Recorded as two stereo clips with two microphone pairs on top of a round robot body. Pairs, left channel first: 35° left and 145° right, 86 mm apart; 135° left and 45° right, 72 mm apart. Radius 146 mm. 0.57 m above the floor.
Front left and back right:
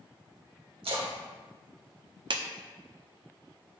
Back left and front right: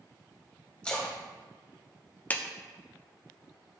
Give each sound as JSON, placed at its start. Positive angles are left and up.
{"t": 0.8, "sound": "a splash", "azimuth_deg": -150, "distance_m": 1.6}
{"t": 2.3, "sound": "a clap", "azimuth_deg": -160, "distance_m": 1.0}